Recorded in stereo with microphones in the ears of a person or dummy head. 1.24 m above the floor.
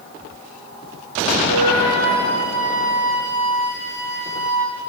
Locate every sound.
1.5 s a flute: 45° right (ahead or behind), 0.9 m